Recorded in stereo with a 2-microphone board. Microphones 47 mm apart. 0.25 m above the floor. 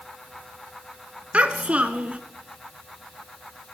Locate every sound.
1.3 s a child speaking: 25° right (ahead or behind), 1.7 m